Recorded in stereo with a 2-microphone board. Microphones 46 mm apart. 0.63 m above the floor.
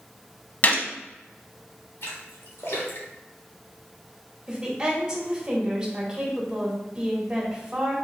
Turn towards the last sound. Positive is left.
turn(degrees=-15)  # may be behind; listen again after turning